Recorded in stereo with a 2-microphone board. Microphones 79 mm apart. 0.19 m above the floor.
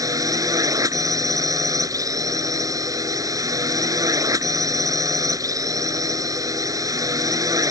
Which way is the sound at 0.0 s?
45° right (ahead or behind).